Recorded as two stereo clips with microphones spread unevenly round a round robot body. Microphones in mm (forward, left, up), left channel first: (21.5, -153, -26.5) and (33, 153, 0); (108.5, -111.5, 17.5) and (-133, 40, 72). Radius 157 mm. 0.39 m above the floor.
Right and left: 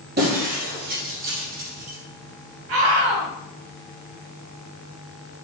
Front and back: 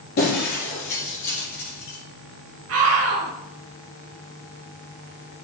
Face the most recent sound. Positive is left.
turn(degrees=105)